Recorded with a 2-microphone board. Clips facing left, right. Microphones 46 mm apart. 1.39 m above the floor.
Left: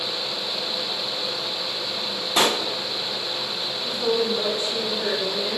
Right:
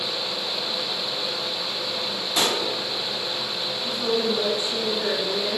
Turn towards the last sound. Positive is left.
turn(degrees=5)  # may be behind; listen again after turning